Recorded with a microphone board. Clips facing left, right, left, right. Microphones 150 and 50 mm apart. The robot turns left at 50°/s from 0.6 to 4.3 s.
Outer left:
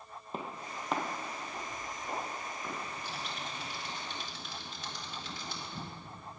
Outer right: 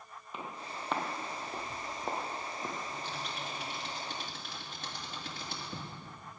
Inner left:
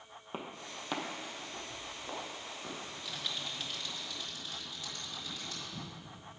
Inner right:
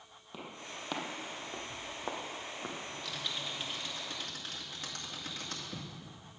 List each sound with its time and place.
0.3 s footsteps: 35° left (ahead or behind), 1.9 m; by 2.8 s 30° right (ahead or behind), 3 m
2.8 s typing on a keyboard: 20° left (ahead or behind), 2.5 m; by 5.9 s 55° right (ahead or behind), 2.5 m